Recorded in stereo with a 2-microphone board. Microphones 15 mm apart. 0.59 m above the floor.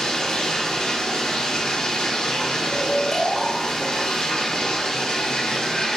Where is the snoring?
10° left (ahead or behind), 1.1 m.